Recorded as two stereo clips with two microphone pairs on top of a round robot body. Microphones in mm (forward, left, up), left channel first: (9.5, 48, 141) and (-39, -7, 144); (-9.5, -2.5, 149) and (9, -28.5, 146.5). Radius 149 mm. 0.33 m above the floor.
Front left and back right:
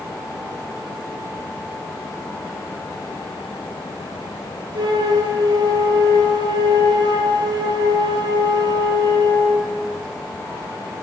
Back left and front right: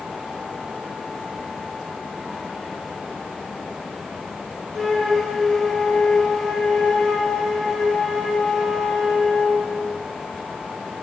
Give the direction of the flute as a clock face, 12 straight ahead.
5 o'clock.